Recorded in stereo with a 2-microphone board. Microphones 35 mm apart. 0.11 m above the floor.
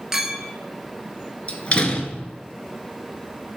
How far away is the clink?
About 1.0 m.